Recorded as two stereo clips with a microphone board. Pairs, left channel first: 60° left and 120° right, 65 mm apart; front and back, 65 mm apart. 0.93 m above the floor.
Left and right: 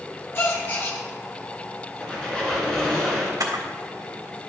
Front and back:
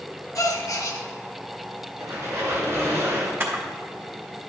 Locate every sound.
0.3 s a gasp: 15° left, 1.2 m
2.0 s a squeak: 135° left, 3 m
3.4 s a camera shutter: 125° right, 1.5 m